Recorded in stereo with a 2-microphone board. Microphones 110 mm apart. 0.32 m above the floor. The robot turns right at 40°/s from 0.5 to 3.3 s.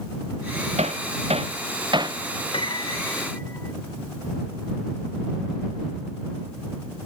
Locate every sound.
0.8 s hammering: 90° right; by 2.2 s 35° right (ahead or behind)
2.5 s a piano: 130° left; by 3.7 s 160° left